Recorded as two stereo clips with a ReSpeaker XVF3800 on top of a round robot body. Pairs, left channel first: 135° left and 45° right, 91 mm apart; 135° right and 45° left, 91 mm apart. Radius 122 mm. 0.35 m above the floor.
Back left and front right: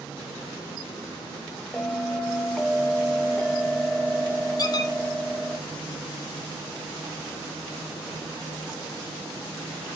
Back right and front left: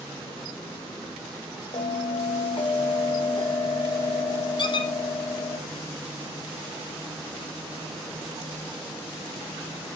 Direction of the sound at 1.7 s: 140° right.